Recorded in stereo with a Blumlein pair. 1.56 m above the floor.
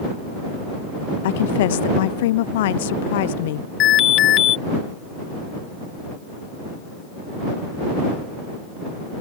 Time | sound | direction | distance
1.2 | a woman speaking | 55° left | ?
3.8 | an alarm | 35° left | ?